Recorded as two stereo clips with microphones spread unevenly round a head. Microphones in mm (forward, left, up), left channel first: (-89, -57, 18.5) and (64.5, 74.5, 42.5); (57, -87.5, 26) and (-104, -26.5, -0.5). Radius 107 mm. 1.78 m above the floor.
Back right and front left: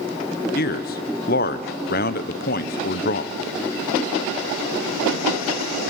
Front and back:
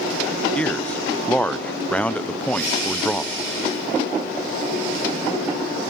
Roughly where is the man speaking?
Right.